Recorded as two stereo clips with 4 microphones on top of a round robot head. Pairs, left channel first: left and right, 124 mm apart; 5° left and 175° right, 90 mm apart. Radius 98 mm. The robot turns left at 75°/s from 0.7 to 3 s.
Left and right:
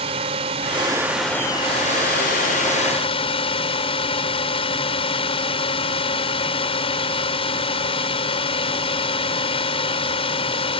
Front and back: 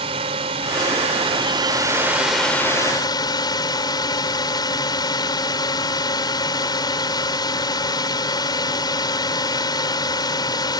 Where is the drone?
140° right; by 10.8 s 45° left.